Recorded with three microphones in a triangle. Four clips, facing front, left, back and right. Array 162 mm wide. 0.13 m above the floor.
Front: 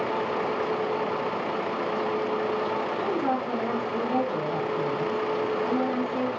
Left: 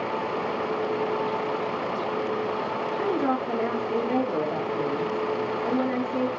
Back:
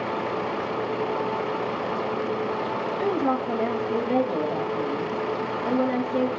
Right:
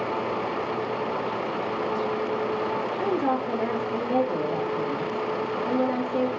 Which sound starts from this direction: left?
A woman speaking, at 3.0 s.